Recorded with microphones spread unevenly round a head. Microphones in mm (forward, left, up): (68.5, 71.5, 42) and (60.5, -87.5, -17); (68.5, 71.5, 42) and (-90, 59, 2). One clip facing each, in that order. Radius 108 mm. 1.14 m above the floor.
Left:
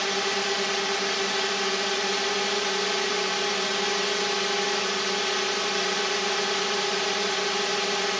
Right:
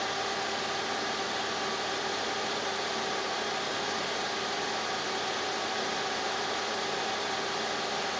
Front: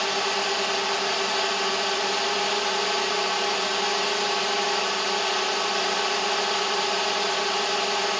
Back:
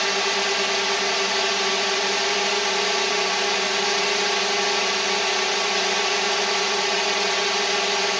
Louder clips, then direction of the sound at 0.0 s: Left 5 dB, back 2 dB; 110° left.